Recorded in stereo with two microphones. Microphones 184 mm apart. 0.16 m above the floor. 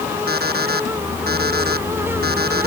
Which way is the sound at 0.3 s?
60° right (ahead or behind).